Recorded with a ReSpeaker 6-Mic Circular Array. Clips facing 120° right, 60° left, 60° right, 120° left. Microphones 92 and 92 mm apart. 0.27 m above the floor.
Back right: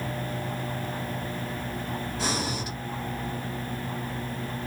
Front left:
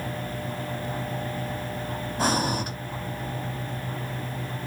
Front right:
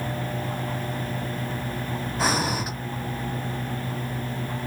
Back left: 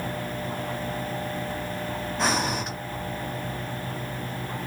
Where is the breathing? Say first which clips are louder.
Front left 7 dB, front right 1 dB; 25° left, 0.6 m.